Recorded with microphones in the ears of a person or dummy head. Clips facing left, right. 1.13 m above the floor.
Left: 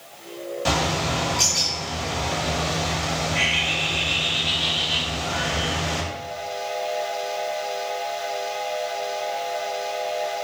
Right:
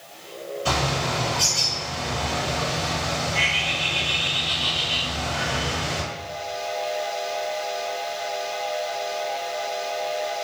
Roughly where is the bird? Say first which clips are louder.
Left 1 dB; left.